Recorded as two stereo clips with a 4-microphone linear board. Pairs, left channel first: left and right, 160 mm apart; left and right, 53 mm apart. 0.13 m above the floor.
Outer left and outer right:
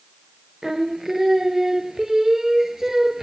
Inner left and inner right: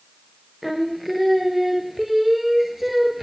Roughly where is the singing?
Centre.